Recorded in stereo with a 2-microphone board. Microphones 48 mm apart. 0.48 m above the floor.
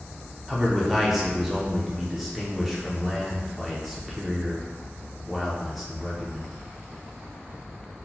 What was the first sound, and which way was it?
A man speaking, centre (ahead or behind).